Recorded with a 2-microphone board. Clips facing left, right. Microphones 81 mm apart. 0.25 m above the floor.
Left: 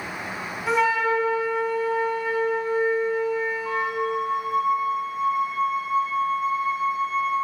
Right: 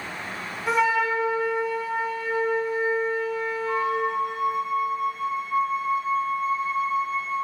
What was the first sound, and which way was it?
A flute, centre (ahead or behind).